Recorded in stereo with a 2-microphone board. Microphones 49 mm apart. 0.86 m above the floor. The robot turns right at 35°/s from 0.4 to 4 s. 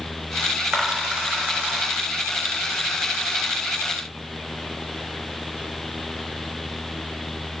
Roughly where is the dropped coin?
Centre.